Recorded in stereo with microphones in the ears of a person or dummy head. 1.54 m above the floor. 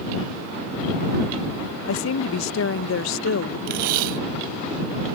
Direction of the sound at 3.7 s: 60° right (ahead or behind).